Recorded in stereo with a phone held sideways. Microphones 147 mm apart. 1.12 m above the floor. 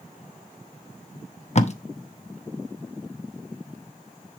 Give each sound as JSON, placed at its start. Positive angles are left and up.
{"t": 1.6, "sound": "tape being pulled", "side_deg": 50, "distance_m": 0.8}